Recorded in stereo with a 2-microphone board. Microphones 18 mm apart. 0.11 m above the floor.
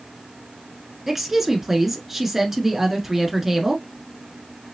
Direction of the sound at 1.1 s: 15° right (ahead or behind).